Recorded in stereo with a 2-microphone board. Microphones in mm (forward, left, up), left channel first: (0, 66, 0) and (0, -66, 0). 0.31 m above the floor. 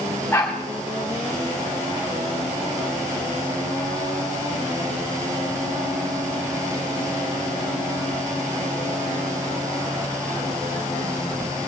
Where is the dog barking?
15° left (ahead or behind), 8 m.